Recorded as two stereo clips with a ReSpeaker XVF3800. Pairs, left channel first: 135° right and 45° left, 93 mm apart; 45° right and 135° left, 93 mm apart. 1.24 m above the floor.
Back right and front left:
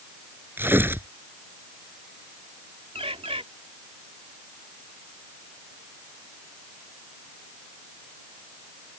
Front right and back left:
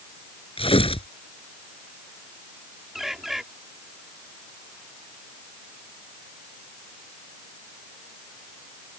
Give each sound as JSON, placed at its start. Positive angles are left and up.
{"t": 0.6, "sound": "tearing paper", "azimuth_deg": -25}
{"t": 3.0, "sound": "a bird", "azimuth_deg": 50}